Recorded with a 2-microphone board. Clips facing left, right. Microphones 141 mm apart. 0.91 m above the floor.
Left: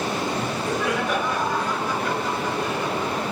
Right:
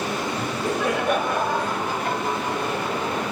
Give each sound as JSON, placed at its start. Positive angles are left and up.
{"t": 0.4, "sound": "laughter", "side_deg": -55, "distance_m": 5.0}